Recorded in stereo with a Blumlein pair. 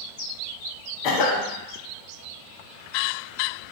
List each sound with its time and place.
1.0 s a cough: 40° left, 0.6 m